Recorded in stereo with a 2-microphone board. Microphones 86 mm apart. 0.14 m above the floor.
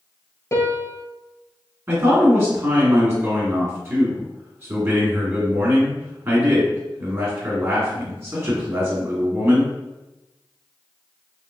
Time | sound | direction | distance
0.5 | a piano | 35° left (ahead or behind) | 0.6 m
1.9 | a man speaking | 30° right (ahead or behind) | 1.6 m